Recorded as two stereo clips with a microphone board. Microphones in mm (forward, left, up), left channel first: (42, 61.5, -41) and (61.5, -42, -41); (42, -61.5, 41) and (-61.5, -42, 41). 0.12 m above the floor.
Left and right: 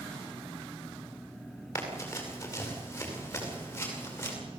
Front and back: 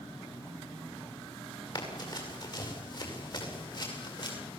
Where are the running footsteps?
35° left, 9 m; by 4.3 s 30° left, 11.5 m.